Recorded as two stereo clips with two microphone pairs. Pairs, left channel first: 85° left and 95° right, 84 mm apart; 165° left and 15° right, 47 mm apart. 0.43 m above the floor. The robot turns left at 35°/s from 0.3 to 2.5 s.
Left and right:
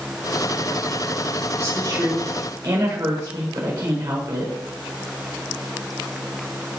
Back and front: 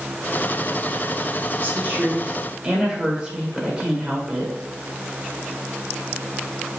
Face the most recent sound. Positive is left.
turn(degrees=-80)